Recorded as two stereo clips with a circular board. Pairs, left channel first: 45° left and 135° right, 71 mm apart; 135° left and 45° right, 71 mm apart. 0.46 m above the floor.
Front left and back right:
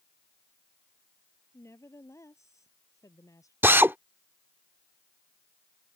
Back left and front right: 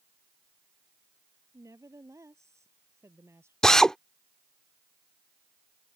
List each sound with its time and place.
1.5 s a woman speaking: 5° right; by 3.5 s 5° left
3.6 s a drill: 150° right